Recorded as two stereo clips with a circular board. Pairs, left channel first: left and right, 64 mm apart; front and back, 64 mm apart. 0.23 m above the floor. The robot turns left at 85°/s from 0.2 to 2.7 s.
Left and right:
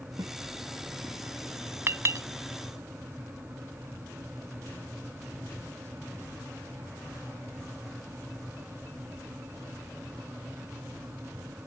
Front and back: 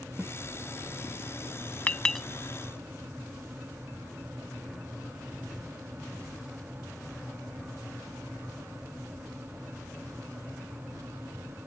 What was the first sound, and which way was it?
A snare drum, 110° right.